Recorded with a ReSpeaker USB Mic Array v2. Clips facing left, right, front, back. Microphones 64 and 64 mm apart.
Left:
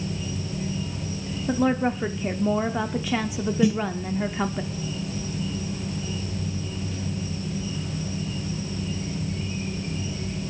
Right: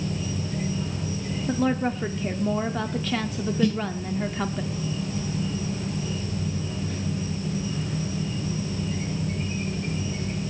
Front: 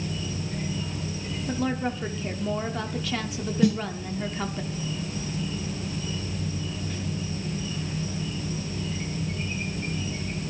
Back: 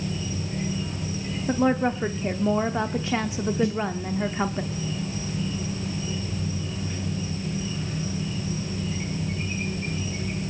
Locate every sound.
0.0 s an insect: 100° right, 8 m
1.5 s a woman speaking: 155° left, 1.0 m
3.6 s a snare drum: 10° left, 1.1 m